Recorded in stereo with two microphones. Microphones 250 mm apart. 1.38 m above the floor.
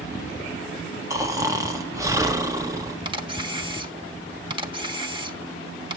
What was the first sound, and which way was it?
Snoring, 15° right (ahead or behind).